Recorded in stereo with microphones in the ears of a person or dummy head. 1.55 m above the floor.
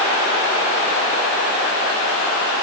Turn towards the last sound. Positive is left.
No sound to turn to.